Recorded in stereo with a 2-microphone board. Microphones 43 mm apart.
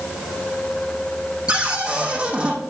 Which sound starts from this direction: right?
A cupboard door, at 1.5 s.